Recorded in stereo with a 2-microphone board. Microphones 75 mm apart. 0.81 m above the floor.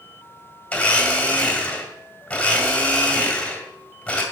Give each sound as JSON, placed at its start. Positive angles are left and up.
{"t": 0.7, "sound": "a blender", "side_deg": 20, "distance_m": 2.0}